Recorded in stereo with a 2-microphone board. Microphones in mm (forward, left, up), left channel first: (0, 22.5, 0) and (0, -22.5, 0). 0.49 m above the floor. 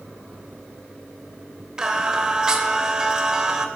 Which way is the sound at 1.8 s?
20° right (ahead or behind).